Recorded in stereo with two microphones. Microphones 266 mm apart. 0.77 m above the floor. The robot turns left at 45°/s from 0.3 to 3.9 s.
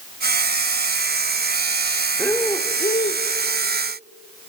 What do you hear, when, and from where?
2.2 s breathing: 175° left, 0.5 m; by 3.2 s 125° left, 0.5 m